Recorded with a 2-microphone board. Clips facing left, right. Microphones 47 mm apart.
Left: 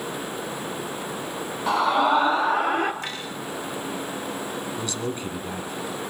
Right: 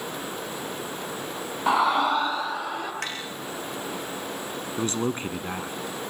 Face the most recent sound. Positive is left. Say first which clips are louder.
# right 2 dB
turn(degrees=-35)  # may be behind; listen again after turning